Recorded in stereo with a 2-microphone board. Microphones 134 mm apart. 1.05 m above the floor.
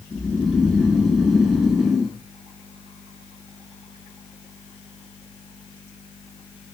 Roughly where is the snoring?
Centre.